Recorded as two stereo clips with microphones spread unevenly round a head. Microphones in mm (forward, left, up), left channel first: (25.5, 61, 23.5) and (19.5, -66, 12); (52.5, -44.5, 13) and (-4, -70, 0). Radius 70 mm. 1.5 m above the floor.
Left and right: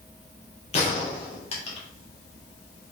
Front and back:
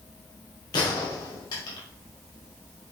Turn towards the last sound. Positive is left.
turn(degrees=45)